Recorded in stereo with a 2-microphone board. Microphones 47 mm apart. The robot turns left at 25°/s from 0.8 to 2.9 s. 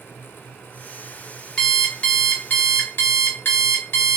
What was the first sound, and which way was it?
An alarm clock, 165° left.